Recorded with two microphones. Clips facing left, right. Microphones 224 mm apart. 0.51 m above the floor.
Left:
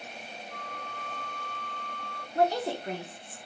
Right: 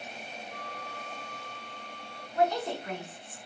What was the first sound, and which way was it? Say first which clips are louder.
A flute: even; 5° right (ahead or behind).